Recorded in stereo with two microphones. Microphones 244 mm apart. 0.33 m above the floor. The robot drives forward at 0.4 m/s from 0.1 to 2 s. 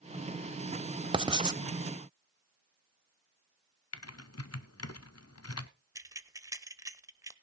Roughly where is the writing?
Right.